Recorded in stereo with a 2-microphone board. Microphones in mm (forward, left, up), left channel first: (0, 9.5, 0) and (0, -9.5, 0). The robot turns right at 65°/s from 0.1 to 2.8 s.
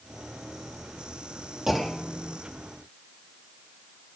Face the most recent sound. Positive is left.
turn(degrees=45)